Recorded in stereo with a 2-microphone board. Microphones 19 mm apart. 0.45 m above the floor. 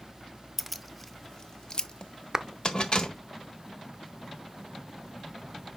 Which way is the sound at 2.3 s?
30° right (ahead or behind).